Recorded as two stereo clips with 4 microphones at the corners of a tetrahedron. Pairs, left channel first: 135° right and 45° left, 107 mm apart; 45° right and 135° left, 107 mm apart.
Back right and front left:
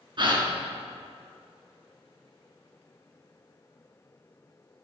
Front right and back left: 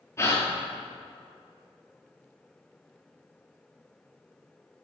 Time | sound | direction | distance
0.2 | a gasp | 15° left | 1.3 m